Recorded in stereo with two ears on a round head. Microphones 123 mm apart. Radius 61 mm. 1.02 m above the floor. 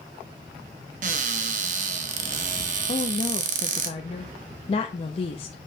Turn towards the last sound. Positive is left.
turn(degrees=45)  # may be behind; listen again after turning